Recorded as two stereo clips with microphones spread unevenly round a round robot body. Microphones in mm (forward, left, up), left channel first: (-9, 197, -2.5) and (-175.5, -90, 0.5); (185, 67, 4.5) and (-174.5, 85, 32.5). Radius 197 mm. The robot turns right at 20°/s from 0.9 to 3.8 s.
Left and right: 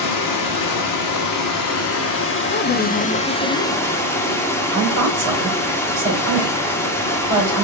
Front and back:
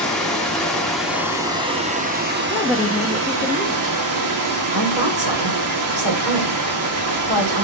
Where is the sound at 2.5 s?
75° left, 0.7 m; by 4.0 s 100° left, 0.7 m.